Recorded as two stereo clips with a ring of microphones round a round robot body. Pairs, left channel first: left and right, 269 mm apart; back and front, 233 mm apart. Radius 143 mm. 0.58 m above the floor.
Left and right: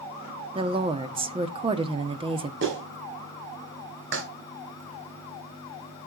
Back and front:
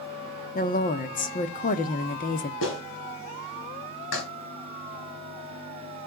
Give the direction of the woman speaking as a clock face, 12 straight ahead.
5 o'clock.